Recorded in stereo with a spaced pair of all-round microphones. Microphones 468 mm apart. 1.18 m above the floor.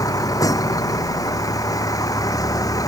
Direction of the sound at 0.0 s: 5° left (ahead or behind).